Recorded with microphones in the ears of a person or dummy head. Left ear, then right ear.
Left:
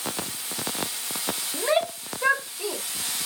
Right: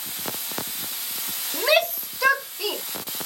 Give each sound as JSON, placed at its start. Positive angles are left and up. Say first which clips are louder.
{"t": 1.5, "sound": "a shout", "louder": "right 5 dB", "side_deg": -80}